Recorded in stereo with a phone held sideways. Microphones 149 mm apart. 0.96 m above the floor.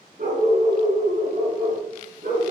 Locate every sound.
0.2 s a dog barking: 70° right (ahead or behind), 4 m; by 2.5 s 85° right, 4.5 m